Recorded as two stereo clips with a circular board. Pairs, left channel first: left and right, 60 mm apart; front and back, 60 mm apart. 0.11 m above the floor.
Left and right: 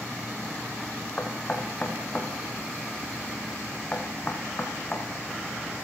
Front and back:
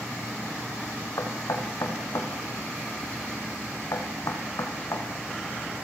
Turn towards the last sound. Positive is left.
turn(degrees=25)